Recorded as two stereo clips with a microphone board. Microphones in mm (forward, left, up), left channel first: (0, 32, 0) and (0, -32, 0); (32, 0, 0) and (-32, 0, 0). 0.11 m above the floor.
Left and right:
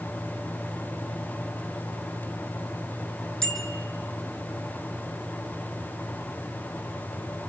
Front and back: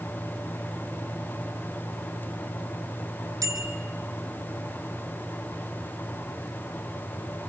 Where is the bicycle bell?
170° left, 3.5 m.